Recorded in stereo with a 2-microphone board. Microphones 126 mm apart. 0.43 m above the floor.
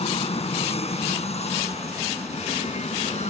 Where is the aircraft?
55° left (ahead or behind); by 3.3 s 65° left (ahead or behind).